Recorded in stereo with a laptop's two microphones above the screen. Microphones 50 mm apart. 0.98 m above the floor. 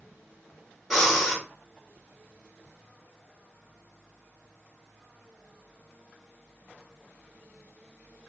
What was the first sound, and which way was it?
Breathing, 5° left (ahead or behind).